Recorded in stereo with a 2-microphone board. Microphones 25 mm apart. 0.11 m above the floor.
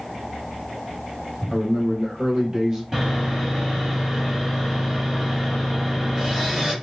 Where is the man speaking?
30° right (ahead or behind), 1.2 m.